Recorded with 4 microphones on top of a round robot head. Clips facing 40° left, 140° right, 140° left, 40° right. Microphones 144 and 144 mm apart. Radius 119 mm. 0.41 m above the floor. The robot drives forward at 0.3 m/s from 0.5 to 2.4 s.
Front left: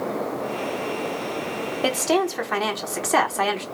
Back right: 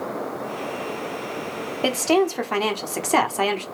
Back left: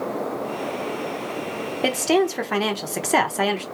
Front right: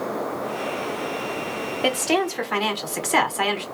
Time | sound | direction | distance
1.8 | a woman speaking | 145° left | 0.9 m